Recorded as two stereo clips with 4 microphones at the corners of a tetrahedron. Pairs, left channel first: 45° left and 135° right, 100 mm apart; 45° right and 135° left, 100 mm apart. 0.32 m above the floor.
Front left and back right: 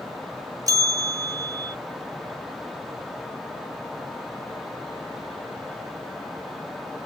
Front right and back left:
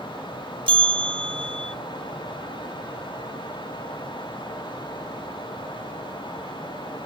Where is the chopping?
I don't hear chopping.